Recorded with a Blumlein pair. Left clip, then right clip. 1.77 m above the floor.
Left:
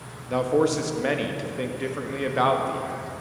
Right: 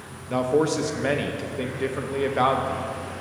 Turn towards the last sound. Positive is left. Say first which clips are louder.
# even
turn(degrees=0)